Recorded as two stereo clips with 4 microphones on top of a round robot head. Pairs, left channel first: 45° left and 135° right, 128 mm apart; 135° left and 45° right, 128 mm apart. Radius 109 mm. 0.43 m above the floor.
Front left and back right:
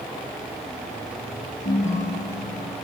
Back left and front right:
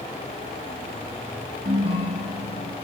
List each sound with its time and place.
1.6 s a ringtone: straight ahead, 5.5 m